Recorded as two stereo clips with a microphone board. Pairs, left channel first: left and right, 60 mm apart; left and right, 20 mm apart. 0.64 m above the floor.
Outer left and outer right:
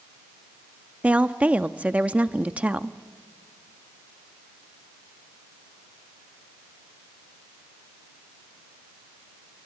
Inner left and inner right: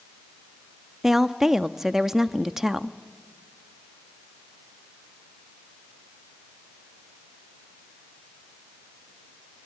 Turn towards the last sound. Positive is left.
turn(degrees=-25)  # may be behind; listen again after turning